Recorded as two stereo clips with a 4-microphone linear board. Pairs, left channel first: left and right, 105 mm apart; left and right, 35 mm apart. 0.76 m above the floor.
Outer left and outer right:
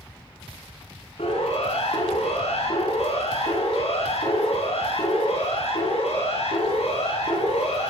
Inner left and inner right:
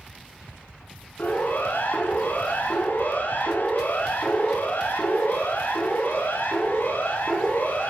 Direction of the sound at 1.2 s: 70° left (ahead or behind).